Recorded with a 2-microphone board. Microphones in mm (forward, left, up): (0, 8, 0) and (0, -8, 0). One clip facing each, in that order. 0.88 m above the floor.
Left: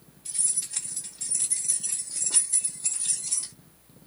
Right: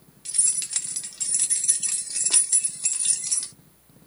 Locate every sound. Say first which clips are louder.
0.2 s keys jangling: right 4 dB; 60° right (ahead or behind), 1.2 m; by 3.5 s 40° right (ahead or behind), 1.4 m